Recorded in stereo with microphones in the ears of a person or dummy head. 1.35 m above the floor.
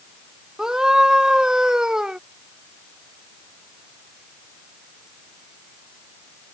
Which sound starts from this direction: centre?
A scream, at 0.6 s.